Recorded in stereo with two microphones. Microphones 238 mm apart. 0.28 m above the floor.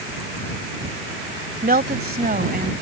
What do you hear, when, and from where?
1.6 s a woman speaking: 40° right (ahead or behind)